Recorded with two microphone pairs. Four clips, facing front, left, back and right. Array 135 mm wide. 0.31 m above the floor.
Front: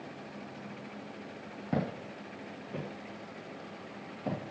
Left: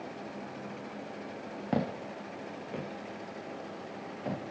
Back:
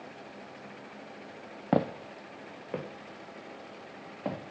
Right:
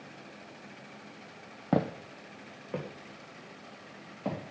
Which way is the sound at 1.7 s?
165° right.